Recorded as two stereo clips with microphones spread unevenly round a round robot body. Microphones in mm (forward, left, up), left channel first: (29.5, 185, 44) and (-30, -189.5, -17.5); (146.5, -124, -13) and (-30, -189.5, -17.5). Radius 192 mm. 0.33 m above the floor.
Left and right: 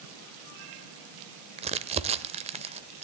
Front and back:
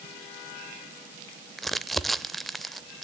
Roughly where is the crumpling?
Right.